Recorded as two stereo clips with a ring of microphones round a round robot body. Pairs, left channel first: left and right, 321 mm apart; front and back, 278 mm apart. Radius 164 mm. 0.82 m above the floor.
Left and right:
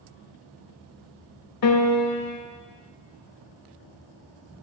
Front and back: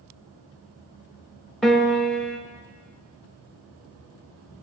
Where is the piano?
90° left, 1.3 m.